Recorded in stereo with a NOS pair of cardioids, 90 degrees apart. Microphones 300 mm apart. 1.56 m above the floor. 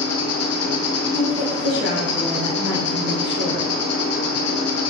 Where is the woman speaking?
35° left, 1.1 m.